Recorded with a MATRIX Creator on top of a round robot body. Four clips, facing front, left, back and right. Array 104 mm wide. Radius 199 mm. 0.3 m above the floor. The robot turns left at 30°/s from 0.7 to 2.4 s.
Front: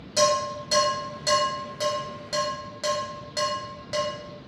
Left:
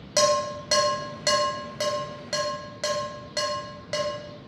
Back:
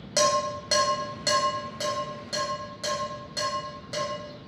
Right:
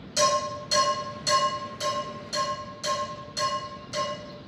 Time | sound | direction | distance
0.2 | dishes clattering | 125° left | 1.1 m